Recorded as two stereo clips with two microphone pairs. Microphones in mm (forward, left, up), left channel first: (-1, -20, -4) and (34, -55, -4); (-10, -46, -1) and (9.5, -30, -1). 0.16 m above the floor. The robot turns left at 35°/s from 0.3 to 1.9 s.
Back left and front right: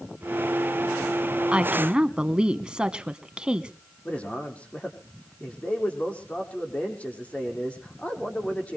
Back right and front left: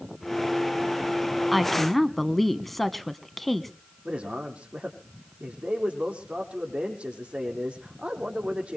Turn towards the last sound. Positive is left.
turn(degrees=70)